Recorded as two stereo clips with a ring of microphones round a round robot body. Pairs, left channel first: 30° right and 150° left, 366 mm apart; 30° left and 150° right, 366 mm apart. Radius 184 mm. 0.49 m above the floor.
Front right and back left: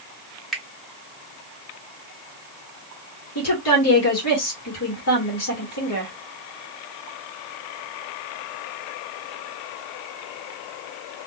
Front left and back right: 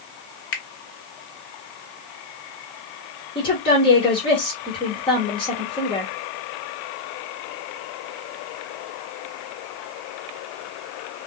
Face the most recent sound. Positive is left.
turn(degrees=-40)